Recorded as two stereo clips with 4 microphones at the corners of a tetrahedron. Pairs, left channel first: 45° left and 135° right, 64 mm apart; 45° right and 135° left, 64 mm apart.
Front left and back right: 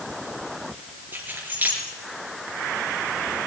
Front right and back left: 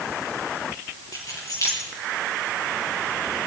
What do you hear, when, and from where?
1.1 s keys jangling: 70° right, 4.5 m